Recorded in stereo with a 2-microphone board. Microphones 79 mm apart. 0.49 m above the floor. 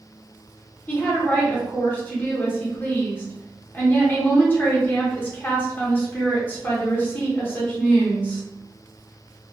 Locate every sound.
0.9 s a woman speaking: 25° left (ahead or behind), 1.0 m